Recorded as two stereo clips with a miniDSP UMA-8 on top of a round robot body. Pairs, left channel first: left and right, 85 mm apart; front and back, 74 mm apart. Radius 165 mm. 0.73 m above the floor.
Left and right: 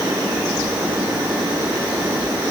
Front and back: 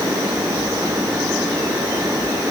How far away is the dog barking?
I don't hear a dog barking.